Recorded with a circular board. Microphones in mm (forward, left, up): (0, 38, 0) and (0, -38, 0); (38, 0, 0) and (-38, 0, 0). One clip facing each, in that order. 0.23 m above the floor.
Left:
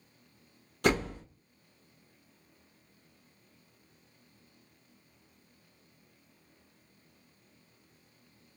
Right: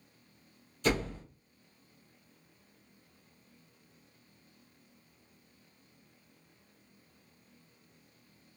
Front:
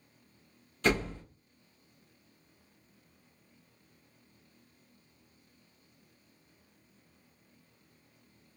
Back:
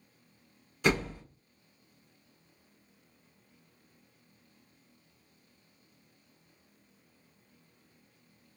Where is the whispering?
I don't hear whispering.